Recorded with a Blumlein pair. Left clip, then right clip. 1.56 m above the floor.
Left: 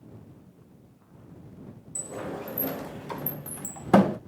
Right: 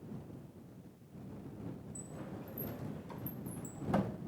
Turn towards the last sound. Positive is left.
turn(degrees=35)